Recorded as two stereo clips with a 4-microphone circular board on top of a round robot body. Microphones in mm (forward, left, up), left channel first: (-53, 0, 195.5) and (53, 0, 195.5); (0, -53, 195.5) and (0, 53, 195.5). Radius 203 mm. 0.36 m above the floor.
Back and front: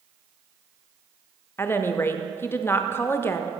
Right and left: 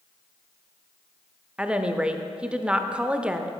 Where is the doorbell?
No doorbell in this recording.